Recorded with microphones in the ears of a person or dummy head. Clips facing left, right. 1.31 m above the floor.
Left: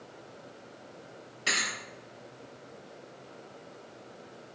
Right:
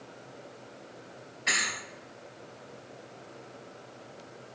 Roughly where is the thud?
Left.